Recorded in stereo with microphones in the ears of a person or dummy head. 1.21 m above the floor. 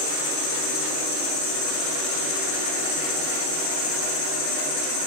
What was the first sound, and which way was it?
An insect, 75° left (ahead or behind).